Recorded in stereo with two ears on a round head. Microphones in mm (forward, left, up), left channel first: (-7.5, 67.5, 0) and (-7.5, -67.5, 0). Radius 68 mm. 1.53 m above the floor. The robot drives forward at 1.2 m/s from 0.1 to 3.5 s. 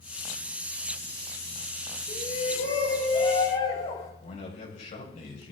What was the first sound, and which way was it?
A shout, 50° left (ahead or behind).